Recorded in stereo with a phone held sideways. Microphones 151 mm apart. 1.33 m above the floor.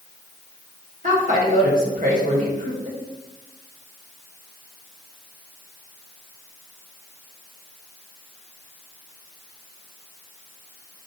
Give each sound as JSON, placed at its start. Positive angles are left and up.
{"t": 1.0, "sound": "a woman speaking", "side_deg": -60, "distance_m": 1.7}